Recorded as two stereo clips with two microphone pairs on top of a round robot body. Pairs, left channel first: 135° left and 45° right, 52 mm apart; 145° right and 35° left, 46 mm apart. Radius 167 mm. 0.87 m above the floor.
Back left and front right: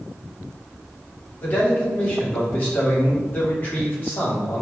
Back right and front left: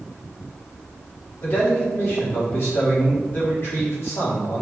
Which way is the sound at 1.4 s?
175° right.